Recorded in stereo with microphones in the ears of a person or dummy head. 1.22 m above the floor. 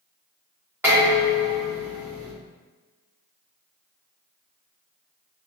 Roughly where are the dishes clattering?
Centre.